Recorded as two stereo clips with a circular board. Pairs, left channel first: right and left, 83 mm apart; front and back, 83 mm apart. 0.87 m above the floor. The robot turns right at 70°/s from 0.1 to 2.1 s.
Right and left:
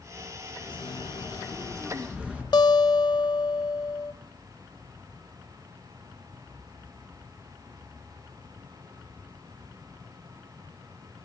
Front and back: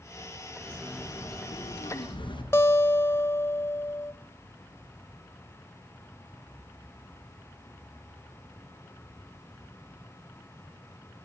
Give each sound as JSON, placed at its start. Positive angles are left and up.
{"t": 0.6, "sound": "a bird", "azimuth_deg": -90, "distance_m": 5.5}
{"t": 2.5, "sound": "a guitar", "azimuth_deg": -60, "distance_m": 0.8}